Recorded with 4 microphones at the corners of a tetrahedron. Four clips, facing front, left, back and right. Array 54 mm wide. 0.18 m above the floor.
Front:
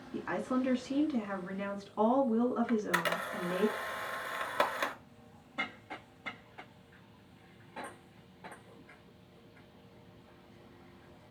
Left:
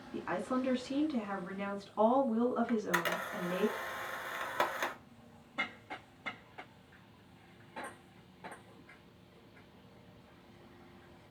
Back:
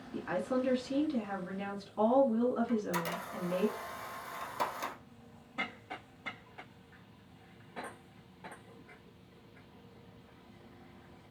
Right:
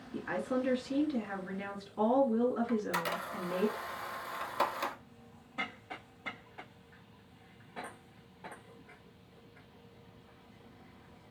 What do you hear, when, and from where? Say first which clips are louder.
0.1 s a woman speaking: right 1 dB, even; 60° left, 1.8 m
2.7 s a camera shutter: even, front 3 dB; 25° left, 0.7 m